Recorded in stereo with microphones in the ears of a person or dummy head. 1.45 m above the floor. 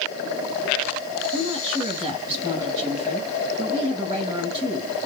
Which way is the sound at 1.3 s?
25° right (ahead or behind).